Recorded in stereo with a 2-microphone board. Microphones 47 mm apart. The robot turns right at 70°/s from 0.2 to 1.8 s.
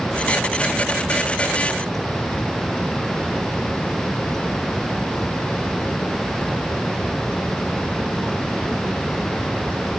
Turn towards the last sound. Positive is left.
No sound to turn to.